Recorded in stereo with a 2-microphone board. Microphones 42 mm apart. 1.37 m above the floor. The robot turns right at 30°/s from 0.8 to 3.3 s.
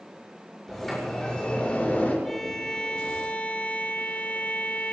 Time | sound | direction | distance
0.7 | a sliding door | straight ahead | 6 m
2.2 | a violin | 5° left | 1.5 m